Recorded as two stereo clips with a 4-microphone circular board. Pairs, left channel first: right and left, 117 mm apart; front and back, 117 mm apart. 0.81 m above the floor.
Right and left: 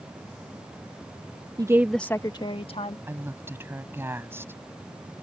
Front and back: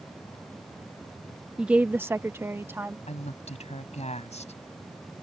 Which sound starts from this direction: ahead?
A woman speaking, at 3.1 s.